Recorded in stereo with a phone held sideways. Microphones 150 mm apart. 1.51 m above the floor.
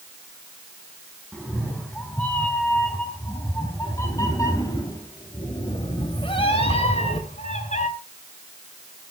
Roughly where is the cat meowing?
Centre.